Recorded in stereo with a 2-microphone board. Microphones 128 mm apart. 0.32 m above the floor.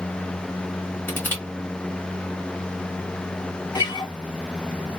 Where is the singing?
No singing in this recording.